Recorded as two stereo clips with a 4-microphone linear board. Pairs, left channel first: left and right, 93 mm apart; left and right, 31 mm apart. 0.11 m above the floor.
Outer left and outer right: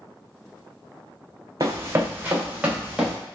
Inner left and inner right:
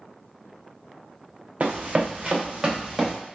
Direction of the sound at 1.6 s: 40° right (ahead or behind).